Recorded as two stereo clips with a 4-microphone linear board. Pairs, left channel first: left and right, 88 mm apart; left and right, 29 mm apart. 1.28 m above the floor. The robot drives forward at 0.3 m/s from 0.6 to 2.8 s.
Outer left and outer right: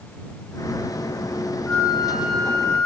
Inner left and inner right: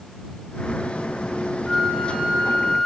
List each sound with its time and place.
1.7 s a flute: 20° left (ahead or behind), 4 m